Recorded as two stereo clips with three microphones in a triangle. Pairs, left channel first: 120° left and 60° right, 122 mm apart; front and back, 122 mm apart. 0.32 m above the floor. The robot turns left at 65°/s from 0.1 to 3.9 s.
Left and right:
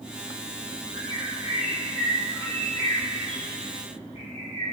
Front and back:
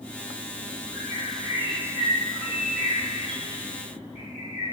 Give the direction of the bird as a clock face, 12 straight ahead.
2 o'clock.